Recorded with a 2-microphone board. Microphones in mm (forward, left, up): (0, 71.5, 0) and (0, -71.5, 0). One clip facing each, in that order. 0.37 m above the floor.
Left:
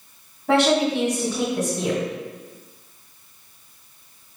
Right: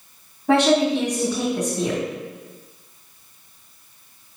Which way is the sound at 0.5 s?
Centre (ahead or behind).